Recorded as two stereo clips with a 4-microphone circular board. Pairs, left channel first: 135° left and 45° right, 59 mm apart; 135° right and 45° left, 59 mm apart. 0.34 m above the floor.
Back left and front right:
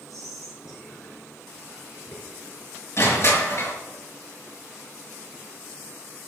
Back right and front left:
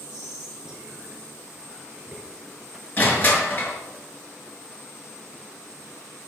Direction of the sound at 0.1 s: 120° left.